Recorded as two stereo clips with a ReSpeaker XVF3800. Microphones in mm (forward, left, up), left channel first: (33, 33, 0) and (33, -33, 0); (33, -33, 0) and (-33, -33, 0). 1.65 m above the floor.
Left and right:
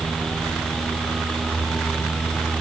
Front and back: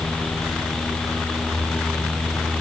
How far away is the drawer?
No drawer in this recording.